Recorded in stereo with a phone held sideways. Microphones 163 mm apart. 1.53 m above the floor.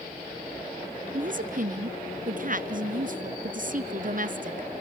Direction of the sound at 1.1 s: 55° right (ahead or behind).